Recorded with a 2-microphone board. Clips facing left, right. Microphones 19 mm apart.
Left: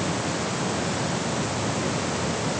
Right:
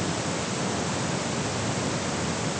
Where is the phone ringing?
I don't hear a phone ringing.